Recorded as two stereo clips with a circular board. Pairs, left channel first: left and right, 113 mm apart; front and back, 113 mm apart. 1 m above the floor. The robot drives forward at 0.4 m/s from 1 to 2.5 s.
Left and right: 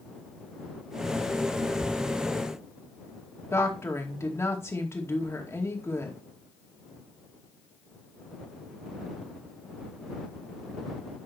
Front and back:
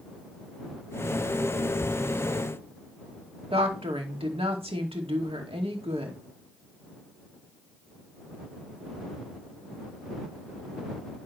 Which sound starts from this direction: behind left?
A woman speaking, at 3.5 s.